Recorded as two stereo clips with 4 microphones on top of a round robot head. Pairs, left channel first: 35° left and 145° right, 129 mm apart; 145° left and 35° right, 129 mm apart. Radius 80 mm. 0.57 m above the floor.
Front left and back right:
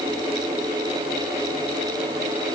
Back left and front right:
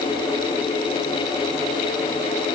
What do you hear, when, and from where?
Only background noise.